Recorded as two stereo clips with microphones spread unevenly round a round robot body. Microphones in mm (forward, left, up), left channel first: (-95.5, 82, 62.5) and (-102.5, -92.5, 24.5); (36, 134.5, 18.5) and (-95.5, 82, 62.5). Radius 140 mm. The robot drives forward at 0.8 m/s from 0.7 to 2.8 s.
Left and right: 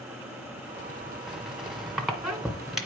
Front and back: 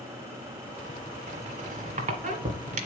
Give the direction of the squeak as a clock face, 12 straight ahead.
6 o'clock.